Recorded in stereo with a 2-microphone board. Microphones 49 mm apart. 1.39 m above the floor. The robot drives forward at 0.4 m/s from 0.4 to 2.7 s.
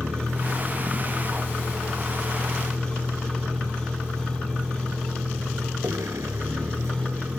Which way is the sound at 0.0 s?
80° right.